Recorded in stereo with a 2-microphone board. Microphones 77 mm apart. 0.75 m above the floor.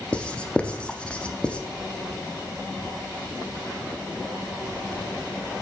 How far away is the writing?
About 0.5 m.